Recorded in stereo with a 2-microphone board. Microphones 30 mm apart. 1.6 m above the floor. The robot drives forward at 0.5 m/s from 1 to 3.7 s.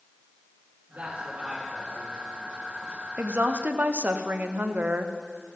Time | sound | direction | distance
0.9 | a man speaking | 65° right (ahead or behind) | 4.5 m
3.2 | a woman speaking | 85° right | 0.7 m